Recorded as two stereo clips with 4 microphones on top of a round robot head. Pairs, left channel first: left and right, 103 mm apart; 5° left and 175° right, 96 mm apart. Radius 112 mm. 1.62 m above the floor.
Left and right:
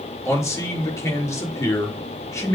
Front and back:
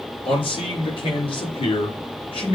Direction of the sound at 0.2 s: 30° left.